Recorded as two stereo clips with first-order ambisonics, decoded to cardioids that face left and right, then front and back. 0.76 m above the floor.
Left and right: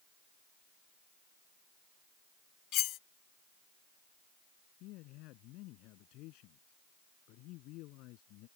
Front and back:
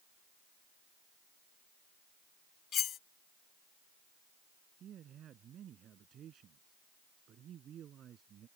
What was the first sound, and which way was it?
Cutlery clinking, 55° left.